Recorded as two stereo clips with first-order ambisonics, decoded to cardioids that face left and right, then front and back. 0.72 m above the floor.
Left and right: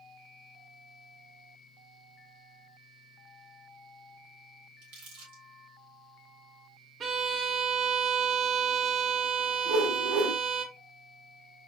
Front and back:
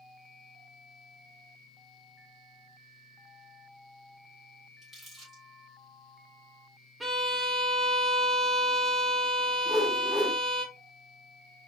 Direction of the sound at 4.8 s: 95° right.